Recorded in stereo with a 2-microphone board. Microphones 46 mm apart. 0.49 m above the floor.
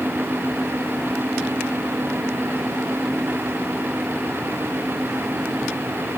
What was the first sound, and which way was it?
Only background noise.